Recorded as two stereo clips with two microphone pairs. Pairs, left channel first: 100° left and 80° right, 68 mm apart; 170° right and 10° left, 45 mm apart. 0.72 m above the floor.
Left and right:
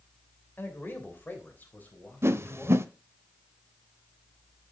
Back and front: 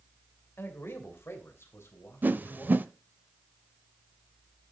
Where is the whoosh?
35° right, 0.7 m.